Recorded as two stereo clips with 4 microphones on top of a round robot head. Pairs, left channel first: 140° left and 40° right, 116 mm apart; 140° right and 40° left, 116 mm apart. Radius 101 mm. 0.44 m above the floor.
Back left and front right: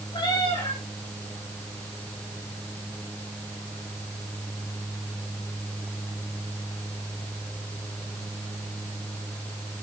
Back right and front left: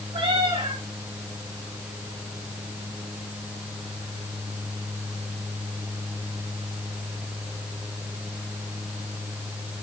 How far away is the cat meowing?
About 7.5 m.